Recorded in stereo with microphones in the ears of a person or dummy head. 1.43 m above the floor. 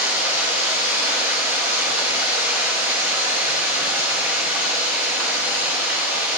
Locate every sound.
0.0 s running water: 10° right (ahead or behind), 1.3 m